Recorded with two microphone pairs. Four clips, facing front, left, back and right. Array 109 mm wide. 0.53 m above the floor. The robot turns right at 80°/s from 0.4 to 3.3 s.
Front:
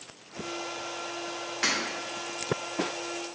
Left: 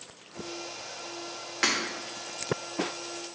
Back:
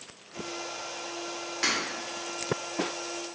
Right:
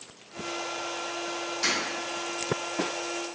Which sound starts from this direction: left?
Breaking glass, at 1.6 s.